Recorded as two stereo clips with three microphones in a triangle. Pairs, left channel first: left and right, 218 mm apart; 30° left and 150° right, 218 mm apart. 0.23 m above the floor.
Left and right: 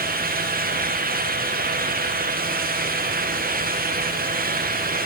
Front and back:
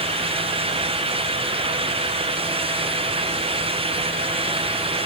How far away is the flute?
I don't hear a flute.